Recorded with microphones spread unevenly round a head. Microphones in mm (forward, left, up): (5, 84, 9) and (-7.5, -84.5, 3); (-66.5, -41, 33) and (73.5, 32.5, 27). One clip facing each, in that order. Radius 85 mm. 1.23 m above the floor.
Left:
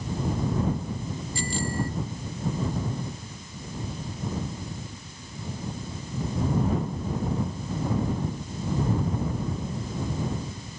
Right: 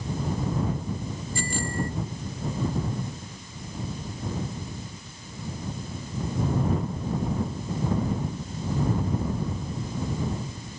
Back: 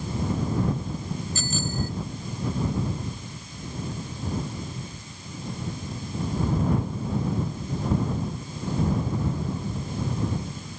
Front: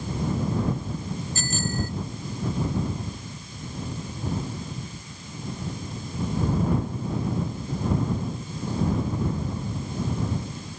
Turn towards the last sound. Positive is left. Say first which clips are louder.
# even, front 1 dB
turn(degrees=-140)